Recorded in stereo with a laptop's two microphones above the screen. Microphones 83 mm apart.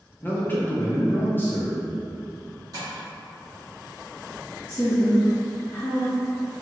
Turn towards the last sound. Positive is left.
turn(degrees=20)  # may be behind; listen again after turning